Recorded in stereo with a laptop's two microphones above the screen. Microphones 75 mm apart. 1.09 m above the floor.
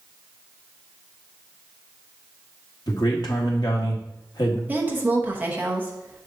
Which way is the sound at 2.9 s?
70° left (ahead or behind).